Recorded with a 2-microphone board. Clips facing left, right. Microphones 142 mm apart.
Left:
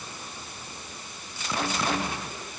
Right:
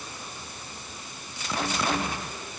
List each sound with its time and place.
Only background noise.